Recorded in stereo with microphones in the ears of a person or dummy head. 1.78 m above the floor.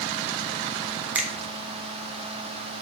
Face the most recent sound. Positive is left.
turn(degrees=-5)  # may be behind; listen again after turning